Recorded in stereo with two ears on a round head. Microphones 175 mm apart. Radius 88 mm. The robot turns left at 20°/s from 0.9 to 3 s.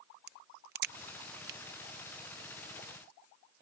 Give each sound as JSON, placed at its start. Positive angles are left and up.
{"t": 0.3, "sound": "a crack", "side_deg": -55}